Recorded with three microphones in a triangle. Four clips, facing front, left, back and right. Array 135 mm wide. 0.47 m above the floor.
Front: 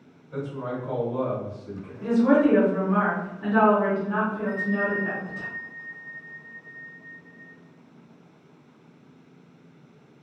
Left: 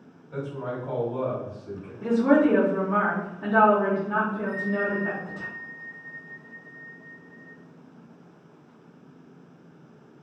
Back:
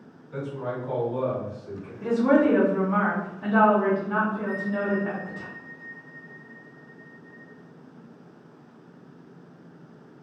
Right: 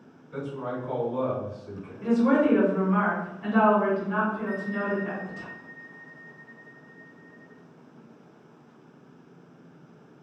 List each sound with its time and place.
0.3 s a man speaking: 70° left, 1.8 m
2.0 s a woman speaking: 90° left, 0.9 m
4.5 s a bell: 70° left, 1.8 m